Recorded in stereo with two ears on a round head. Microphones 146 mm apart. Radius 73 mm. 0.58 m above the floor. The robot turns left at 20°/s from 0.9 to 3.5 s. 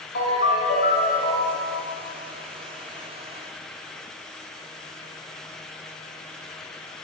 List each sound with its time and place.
0.1 s a ringtone: 70° left (ahead or behind), 2 m; by 1.7 s 55° left (ahead or behind), 2 m